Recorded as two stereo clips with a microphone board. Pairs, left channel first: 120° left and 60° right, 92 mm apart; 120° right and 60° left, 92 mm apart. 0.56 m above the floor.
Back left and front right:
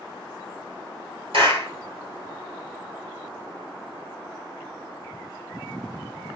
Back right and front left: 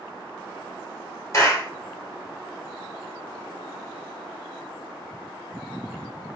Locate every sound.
1.3 s a clap: 60° right, 1.9 m